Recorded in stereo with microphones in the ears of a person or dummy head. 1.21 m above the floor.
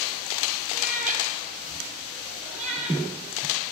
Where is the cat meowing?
45° right (ahead or behind), 5 m; by 3.0 s 35° right (ahead or behind), 6.5 m.